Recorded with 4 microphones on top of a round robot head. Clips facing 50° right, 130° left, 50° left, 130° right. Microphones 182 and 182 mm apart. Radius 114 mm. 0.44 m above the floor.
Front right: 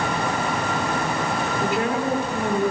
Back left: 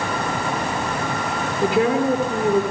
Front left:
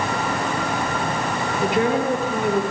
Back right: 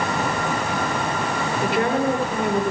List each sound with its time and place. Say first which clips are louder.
1.6 s a woman speaking: back left 7 dB, front left 1 dB; 125° left, 8 m